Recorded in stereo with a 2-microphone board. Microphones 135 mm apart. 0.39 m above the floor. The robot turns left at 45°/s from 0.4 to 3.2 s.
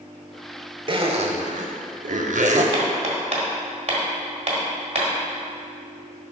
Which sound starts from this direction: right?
Hammering, at 2.7 s.